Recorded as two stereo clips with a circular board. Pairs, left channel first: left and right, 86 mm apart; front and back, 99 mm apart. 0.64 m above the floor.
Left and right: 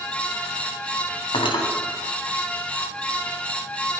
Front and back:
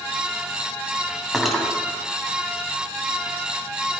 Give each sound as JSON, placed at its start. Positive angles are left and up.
{"t": 1.3, "sound": "cutlery clinking", "azimuth_deg": 95, "distance_m": 2.5}